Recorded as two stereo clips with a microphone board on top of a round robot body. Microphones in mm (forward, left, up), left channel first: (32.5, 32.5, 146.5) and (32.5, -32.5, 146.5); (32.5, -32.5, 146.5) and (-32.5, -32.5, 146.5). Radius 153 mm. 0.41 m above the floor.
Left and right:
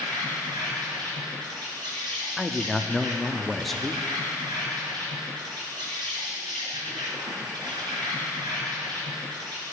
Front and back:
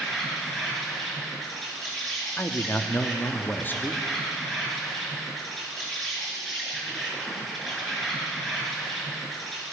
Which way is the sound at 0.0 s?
85° right.